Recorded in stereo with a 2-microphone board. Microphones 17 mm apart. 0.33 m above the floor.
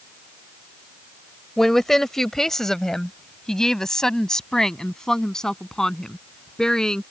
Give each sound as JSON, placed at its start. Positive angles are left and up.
{"t": 1.6, "sound": "a woman speaking", "side_deg": 20}